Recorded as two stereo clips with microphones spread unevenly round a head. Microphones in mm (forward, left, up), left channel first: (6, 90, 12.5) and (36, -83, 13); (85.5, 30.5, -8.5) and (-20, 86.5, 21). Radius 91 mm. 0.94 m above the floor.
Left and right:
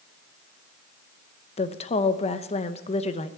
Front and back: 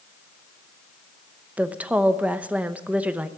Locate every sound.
1.6 s a woman speaking: 60° left, 0.9 m